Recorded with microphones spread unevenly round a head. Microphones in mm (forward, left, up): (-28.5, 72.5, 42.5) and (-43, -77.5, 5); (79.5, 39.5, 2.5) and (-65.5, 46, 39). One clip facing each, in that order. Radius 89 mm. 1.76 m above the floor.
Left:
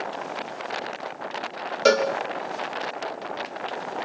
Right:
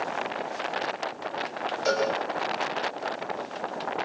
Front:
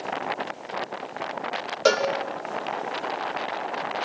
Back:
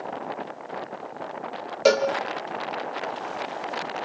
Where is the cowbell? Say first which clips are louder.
Left 7 dB, back 2 dB; 100° left, 1.9 m.